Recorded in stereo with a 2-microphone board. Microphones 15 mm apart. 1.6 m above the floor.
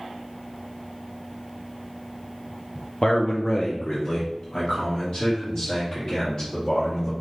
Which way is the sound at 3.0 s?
60° left (ahead or behind).